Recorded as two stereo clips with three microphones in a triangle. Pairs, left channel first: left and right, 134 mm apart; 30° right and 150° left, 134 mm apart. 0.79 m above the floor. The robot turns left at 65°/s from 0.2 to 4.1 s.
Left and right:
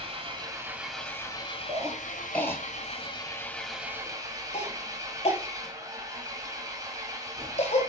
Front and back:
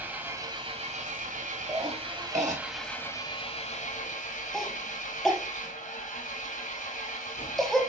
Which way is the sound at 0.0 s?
135° right.